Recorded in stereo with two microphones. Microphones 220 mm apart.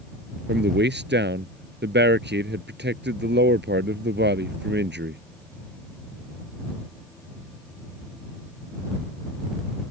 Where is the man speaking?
55° right (ahead or behind).